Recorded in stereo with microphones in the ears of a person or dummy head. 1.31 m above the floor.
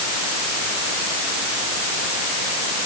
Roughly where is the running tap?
I don't hear a running tap.